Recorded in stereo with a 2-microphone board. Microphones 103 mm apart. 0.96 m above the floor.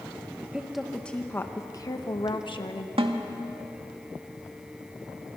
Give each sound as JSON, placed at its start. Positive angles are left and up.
{"t": 0.4, "sound": "a woman speaking", "side_deg": -15, "distance_m": 1.1}
{"t": 3.0, "sound": "a snare drum", "side_deg": -65, "distance_m": 1.8}